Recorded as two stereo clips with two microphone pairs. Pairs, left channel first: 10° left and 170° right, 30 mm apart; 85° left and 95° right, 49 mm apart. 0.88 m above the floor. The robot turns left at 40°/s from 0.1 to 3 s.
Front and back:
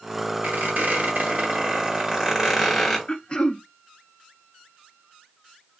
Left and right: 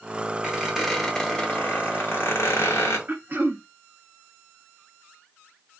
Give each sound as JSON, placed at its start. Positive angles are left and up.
{"t": 0.4, "sound": "a squeak", "azimuth_deg": -165, "distance_m": 1.0}
{"t": 3.1, "sound": "throat clearing", "azimuth_deg": -45, "distance_m": 0.6}